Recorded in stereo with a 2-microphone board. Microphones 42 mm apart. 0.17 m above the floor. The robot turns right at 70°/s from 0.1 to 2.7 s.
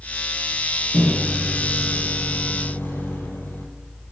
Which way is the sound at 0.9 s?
45° right.